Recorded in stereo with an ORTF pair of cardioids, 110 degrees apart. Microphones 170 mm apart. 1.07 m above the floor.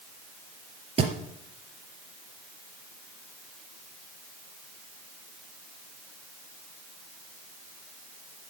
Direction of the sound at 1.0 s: 35° right.